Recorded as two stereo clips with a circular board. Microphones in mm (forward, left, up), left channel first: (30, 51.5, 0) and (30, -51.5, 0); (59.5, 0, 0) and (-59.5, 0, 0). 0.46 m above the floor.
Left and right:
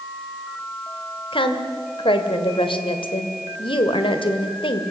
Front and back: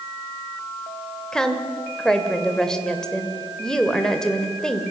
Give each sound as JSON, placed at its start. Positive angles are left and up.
{"t": 1.3, "sound": "a woman speaking", "azimuth_deg": 85, "distance_m": 2.0}